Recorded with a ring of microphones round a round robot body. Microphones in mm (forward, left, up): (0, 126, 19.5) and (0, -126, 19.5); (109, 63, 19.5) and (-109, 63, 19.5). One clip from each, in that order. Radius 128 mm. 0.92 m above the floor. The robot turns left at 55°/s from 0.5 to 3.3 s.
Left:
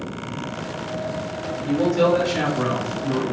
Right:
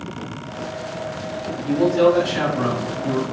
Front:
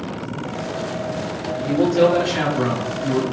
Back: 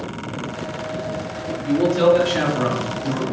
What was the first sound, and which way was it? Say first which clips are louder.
A man speaking: right 3 dB, even; straight ahead.